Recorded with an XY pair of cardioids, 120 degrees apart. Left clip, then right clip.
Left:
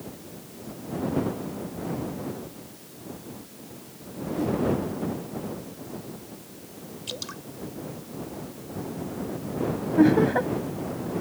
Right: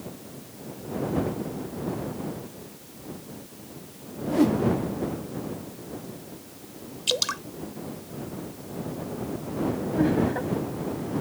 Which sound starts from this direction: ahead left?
Laughter, at 10.0 s.